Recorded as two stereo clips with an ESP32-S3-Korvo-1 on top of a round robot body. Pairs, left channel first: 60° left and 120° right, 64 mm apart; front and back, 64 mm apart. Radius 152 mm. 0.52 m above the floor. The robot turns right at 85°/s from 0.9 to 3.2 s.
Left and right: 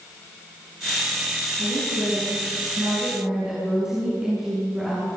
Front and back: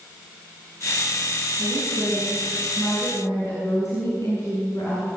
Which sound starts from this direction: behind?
A woman speaking, at 1.6 s.